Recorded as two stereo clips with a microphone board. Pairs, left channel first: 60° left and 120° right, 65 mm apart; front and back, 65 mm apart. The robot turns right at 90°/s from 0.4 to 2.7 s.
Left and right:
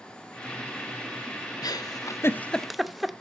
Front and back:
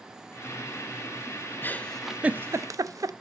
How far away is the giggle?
About 0.7 m.